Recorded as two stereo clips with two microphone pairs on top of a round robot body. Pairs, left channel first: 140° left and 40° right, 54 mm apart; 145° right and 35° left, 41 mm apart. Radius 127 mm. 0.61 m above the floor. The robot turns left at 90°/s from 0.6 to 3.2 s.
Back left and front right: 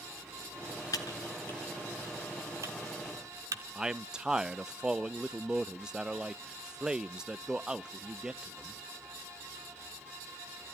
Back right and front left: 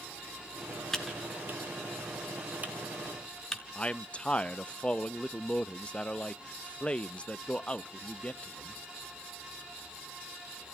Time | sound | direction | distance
0.9 | typing on a keyboard | 140° left | 1.3 m
3.8 | a man speaking | 95° right | 0.6 m